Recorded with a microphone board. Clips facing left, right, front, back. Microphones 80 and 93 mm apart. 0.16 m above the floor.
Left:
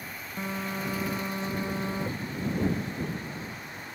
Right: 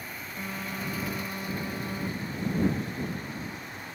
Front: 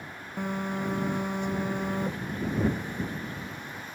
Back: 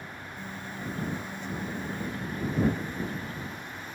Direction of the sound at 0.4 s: 25° left.